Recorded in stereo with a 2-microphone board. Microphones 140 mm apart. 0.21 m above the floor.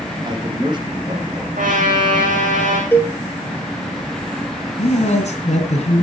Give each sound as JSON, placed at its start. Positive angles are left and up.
{"t": 0.2, "sound": "a man speaking", "side_deg": -35, "distance_m": 4.0}
{"t": 1.6, "sound": "a trumpet", "side_deg": -65, "distance_m": 4.5}
{"t": 2.9, "sound": "a cowbell", "side_deg": 15, "distance_m": 2.5}
{"t": 4.8, "sound": "a man speaking", "side_deg": 55, "distance_m": 2.5}